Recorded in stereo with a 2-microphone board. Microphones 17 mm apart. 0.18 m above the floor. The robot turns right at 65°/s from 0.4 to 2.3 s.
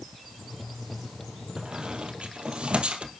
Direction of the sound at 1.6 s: 40° right (ahead or behind).